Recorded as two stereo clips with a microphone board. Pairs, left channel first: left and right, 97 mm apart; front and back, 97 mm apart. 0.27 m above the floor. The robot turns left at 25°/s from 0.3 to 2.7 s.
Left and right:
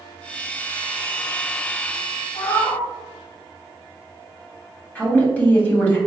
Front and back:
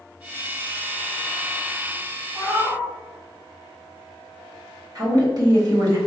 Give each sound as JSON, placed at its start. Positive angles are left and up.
{"t": 2.4, "sound": "a cat meowing", "azimuth_deg": 110, "distance_m": 1.2}
{"t": 5.0, "sound": "a woman speaking", "azimuth_deg": 160, "distance_m": 1.5}